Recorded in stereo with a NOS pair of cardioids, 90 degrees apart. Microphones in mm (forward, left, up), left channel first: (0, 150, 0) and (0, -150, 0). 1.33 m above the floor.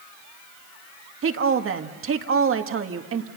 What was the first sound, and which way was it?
A woman speaking, 45° right.